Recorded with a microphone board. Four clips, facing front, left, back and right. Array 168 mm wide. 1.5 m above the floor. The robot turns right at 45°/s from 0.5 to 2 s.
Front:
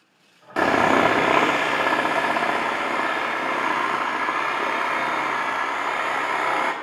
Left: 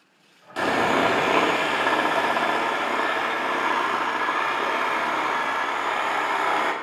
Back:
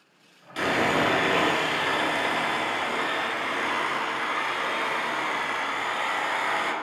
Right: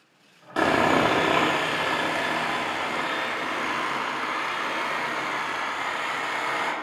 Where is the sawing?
30° right, 1.7 m; by 6.7 s 35° left, 1.7 m.